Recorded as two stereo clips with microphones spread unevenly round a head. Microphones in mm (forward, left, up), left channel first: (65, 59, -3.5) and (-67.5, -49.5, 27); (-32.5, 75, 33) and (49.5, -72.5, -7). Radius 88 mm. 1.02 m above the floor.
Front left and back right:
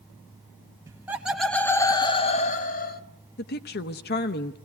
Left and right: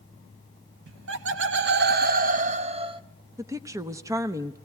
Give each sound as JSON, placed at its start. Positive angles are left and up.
{"t": 0.9, "sound": "laughter", "azimuth_deg": -65, "distance_m": 1.0}
{"t": 3.4, "sound": "a woman speaking", "azimuth_deg": 10, "distance_m": 0.9}